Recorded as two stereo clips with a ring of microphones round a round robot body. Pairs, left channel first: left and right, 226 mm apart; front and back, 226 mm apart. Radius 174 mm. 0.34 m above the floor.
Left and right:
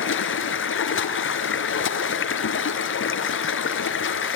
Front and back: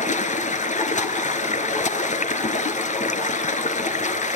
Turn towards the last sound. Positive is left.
turn(degrees=60)